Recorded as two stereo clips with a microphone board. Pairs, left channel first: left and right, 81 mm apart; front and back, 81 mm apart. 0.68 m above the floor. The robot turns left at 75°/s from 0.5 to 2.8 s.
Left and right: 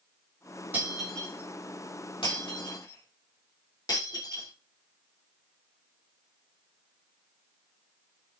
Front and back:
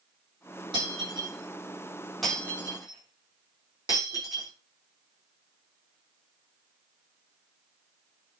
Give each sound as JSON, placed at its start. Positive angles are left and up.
{"t": 0.7, "sound": "breaking glass", "azimuth_deg": -160, "distance_m": 6.0}